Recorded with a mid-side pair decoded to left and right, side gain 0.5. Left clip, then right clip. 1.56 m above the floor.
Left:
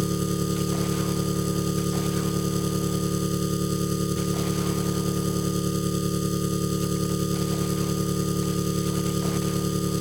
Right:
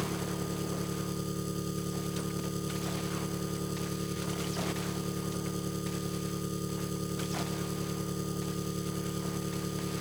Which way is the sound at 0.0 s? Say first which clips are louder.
Left 8 dB; 55° left.